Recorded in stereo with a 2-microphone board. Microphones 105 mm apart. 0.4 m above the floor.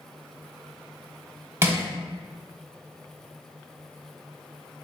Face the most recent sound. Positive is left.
turn(degrees=-25)  # may be behind; listen again after turning